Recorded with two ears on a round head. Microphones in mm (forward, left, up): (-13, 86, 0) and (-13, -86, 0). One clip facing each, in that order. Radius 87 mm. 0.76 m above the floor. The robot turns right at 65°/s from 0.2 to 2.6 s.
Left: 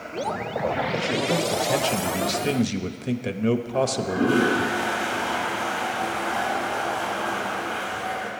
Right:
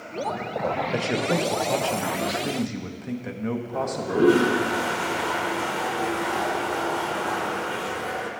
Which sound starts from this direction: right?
A toilet flushing, at 3.7 s.